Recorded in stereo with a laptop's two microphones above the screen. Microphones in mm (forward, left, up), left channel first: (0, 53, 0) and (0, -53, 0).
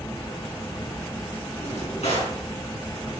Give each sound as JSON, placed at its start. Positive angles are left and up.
{"t": 0.0, "sound": "a fan", "side_deg": 35, "distance_m": 1.5}
{"t": 1.6, "sound": "a drawer", "side_deg": 85, "distance_m": 5.0}